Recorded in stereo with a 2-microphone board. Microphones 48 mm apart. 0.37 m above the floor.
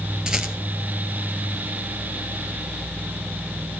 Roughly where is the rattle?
Centre.